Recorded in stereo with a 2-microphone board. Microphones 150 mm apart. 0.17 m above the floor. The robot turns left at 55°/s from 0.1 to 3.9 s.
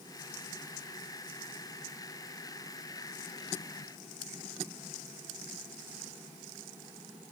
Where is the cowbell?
No cowbell in this recording.